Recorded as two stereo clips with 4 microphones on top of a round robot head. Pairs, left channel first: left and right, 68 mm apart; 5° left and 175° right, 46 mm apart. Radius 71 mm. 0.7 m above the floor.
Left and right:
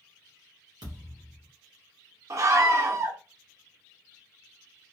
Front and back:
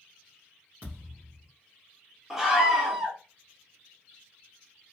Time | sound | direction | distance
0.8 | a thud | 115° right | 1.3 m
2.3 | a scream | 95° right | 0.7 m